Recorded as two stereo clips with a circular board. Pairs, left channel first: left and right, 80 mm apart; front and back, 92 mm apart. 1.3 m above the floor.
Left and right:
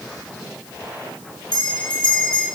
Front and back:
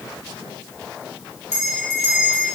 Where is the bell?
115° left, 8 m.